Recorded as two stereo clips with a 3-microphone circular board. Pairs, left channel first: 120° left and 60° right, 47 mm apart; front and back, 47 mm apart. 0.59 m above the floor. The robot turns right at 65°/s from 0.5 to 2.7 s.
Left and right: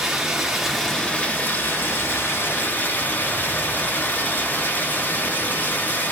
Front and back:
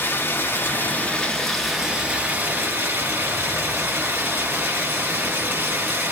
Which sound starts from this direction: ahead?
Running water, at 0.0 s.